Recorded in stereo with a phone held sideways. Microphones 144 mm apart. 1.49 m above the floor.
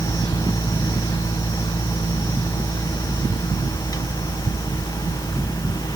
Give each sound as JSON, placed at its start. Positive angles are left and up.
{"t": 0.0, "sound": "a fan", "side_deg": 25, "distance_m": 0.9}